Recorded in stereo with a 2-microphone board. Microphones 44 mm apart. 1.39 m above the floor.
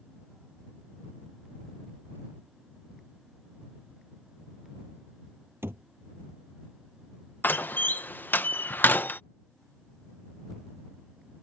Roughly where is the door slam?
Left.